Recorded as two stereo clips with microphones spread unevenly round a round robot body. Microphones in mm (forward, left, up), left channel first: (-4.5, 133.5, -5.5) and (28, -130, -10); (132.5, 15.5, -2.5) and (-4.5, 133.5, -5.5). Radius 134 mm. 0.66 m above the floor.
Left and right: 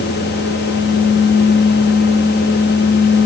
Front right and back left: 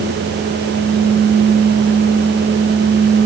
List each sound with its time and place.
Only background noise.